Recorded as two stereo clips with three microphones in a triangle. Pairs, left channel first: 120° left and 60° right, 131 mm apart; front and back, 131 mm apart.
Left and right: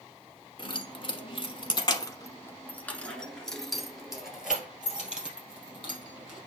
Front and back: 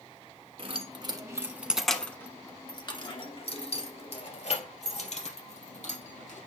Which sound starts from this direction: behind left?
Keys jangling, at 0.6 s.